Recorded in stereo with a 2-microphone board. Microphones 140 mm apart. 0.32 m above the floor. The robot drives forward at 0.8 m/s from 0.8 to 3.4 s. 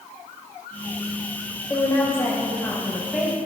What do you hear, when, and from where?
1.7 s a woman speaking: 20° left (ahead or behind), 0.9 m; by 3.4 s 10° left (ahead or behind), 1.8 m